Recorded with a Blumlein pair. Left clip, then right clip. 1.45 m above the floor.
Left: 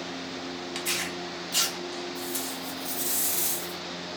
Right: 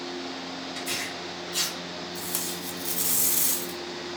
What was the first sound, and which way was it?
Tearing paper, 55° left.